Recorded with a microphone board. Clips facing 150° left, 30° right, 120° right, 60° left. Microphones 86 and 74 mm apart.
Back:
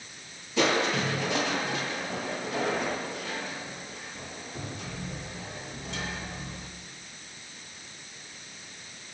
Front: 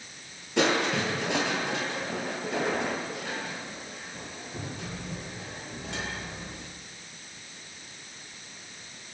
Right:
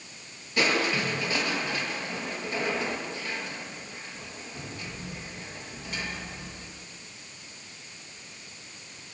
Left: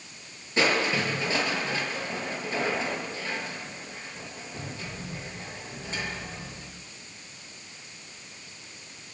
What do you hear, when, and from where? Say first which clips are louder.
0.6 s crushing: even, left 1 dB; 5° right, 6 m